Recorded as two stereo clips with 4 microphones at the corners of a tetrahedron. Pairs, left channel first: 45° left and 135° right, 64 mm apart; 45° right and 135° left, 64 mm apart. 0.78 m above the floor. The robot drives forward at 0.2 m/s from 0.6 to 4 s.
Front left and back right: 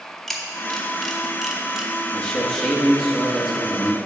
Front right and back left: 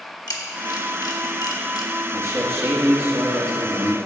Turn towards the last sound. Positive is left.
turn(degrees=140)